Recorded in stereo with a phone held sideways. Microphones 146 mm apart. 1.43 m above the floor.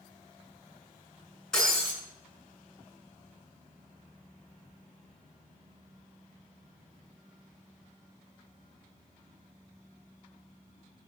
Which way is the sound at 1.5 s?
5° left (ahead or behind).